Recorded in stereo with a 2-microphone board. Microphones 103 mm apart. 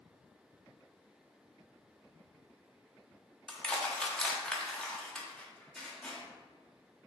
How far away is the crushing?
About 0.7 m.